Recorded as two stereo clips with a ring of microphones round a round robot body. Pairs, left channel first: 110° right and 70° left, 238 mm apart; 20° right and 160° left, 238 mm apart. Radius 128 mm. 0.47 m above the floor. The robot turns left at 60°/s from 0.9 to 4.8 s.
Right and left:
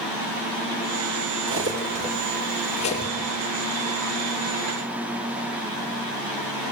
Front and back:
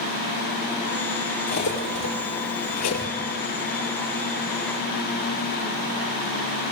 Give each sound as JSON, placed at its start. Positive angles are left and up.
{"t": 1.5, "sound": "cutlery clinking", "azimuth_deg": 35, "distance_m": 7.0}